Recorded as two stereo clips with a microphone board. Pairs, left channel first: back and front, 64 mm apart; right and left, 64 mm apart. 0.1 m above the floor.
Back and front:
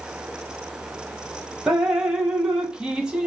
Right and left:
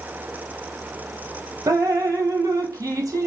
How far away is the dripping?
About 0.7 m.